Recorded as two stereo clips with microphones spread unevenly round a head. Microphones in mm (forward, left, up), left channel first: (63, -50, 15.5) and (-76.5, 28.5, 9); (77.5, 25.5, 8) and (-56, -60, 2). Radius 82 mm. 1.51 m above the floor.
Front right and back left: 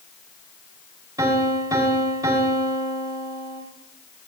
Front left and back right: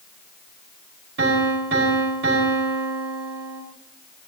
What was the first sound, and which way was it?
A piano, 140° right.